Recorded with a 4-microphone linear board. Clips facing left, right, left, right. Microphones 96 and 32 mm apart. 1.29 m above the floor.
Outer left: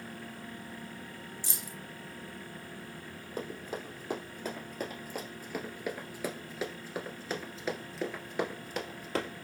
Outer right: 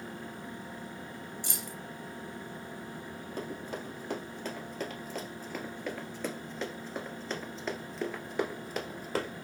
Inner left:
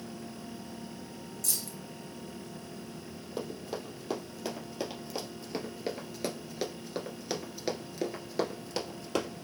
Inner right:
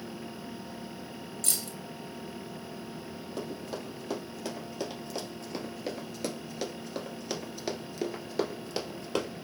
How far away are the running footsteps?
About 2.5 m.